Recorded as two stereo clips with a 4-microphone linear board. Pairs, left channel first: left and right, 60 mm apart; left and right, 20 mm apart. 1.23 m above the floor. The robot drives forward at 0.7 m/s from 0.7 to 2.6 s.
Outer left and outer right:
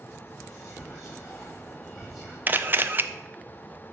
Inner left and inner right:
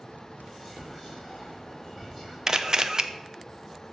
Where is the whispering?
Centre (ahead or behind), 3 m.